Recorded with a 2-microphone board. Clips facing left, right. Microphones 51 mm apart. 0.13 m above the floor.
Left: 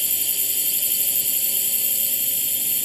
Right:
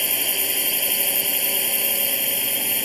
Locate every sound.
0.0 s a drone: 50° right (ahead or behind)